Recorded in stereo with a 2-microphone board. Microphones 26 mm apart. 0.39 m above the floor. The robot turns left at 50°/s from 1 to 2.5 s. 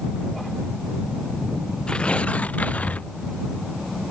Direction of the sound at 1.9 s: 150° left.